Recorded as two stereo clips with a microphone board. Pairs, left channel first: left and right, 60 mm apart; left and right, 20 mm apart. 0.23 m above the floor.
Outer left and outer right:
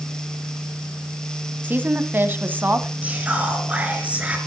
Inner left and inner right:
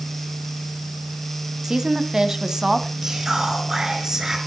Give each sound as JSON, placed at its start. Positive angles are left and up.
{"t": 1.6, "sound": "a woman speaking", "side_deg": -35, "distance_m": 1.3}
{"t": 3.0, "sound": "whispering", "side_deg": -20, "distance_m": 4.5}